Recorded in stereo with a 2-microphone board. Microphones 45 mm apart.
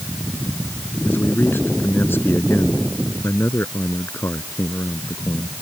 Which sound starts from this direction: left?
A man speaking, at 1.1 s.